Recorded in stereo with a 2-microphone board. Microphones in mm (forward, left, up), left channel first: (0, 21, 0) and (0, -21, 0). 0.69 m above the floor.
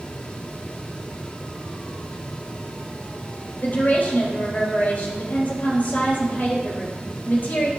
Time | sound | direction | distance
3.6 | a woman speaking | 50° left (ahead or behind) | 3 m